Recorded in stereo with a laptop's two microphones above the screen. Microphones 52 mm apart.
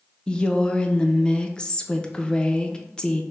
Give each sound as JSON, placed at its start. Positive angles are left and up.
{"t": 0.3, "sound": "a woman speaking", "side_deg": 20, "distance_m": 0.5}